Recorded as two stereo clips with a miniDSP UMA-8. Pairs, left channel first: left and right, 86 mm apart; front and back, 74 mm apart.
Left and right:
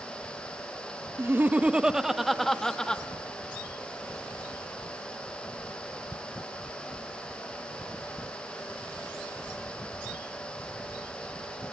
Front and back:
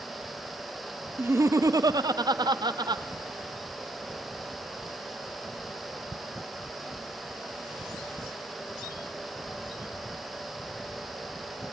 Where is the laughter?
135° right, 0.6 m; by 3.0 s 170° left, 1.2 m.